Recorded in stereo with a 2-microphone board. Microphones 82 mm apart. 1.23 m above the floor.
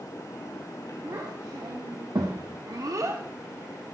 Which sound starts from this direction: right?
A child speaking, at 1.0 s.